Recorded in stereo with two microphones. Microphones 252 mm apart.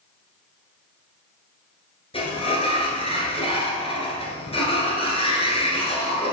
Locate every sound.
2.1 s a sliding door: 25° left (ahead or behind), 1.6 m